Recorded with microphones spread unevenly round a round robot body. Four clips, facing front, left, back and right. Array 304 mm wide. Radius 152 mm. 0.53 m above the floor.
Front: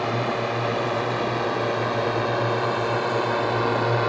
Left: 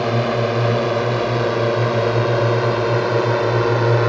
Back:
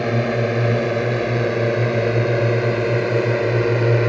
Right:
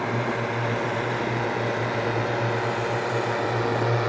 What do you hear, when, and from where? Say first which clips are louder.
0.0 s a drone: left 7 dB, back 4 dB; 140° left; by 4.1 s 135° left